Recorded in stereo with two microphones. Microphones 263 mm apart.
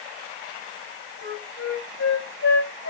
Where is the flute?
80° left, 4 m.